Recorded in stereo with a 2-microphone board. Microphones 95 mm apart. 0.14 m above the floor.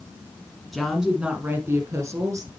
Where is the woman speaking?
Centre (ahead or behind), 1.3 m; by 2.5 s 35° right (ahead or behind), 1.9 m.